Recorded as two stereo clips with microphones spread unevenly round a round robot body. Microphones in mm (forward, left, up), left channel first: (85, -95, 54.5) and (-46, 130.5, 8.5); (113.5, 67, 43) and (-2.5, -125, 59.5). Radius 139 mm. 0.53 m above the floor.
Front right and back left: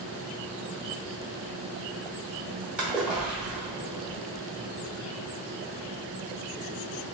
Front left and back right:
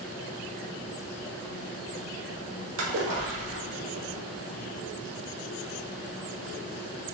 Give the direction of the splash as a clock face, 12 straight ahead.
5 o'clock.